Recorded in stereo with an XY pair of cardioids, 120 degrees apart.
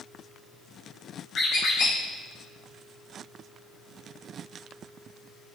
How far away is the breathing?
I don't hear breathing.